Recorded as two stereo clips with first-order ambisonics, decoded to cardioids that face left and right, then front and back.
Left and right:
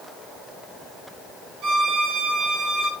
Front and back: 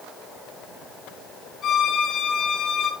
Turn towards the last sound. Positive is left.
turn(degrees=-55)